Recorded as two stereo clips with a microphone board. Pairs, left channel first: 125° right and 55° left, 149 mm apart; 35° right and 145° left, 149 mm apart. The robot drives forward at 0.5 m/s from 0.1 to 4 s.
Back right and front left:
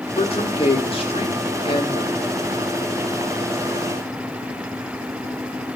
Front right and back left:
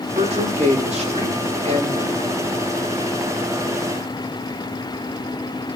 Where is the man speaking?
175° right, 3.5 m.